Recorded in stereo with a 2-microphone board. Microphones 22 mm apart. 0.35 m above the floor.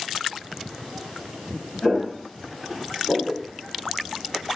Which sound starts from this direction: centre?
Footsteps, at 1.8 s.